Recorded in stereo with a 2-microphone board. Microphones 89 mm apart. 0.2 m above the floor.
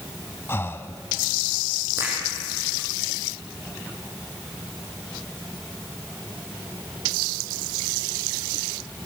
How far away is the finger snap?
About 7 m.